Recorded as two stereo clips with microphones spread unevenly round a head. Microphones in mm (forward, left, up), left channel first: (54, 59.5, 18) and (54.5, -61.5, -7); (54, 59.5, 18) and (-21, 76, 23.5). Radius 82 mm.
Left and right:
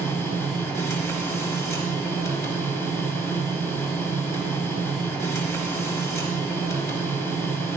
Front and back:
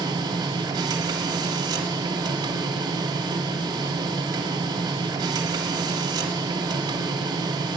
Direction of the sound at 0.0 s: 155° left.